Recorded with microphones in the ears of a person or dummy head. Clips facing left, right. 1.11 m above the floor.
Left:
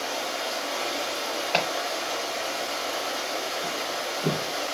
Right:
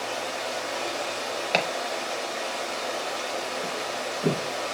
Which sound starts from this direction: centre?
Running water, at 0.0 s.